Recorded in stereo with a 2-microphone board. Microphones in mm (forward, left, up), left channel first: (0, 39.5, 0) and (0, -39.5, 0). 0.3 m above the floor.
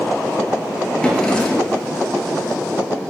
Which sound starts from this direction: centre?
A drawer, at 1.0 s.